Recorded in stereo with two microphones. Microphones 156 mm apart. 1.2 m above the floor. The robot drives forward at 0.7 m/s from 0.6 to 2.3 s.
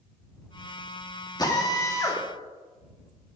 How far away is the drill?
About 2 m.